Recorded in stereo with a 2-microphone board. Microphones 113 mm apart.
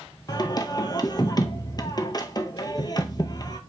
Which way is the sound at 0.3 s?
35° left (ahead or behind).